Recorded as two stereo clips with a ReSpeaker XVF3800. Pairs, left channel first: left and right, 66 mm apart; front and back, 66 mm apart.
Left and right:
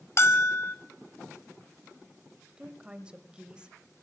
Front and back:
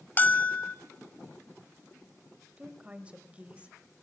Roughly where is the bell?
Ahead left.